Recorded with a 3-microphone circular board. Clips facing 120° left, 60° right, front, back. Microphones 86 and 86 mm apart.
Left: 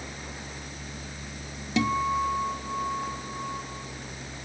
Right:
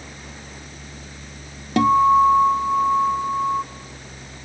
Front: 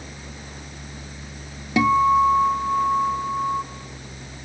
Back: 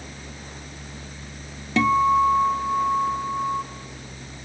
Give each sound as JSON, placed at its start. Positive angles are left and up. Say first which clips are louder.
{"t": 1.8, "sound": "a guitar", "louder": "right 12 dB, front 1 dB", "azimuth_deg": -80, "distance_m": 0.8}